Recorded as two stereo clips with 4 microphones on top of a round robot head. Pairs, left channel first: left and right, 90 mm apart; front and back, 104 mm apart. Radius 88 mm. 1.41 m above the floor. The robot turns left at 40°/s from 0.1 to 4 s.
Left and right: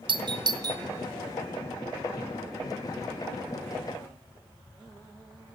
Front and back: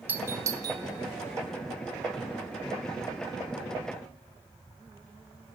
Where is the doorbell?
110° right, 0.5 m; by 0.8 s 135° right, 0.5 m.